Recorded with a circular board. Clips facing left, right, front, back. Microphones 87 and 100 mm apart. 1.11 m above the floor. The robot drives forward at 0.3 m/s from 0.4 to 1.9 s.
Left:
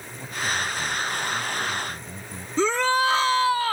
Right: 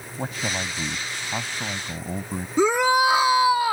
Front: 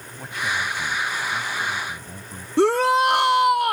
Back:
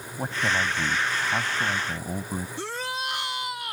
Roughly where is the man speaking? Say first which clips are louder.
Left 1 dB, back 1 dB; behind right.